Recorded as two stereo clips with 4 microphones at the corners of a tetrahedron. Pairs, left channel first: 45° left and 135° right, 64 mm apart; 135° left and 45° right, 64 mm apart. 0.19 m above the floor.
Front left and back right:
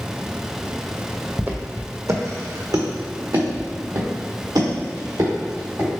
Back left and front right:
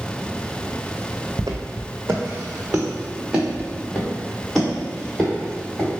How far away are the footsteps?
About 0.6 m.